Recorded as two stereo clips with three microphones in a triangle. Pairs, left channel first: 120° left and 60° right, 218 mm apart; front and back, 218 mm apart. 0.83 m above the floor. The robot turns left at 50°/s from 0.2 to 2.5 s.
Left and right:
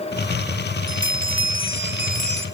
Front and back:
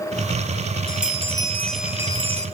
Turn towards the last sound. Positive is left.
turn(degrees=-125)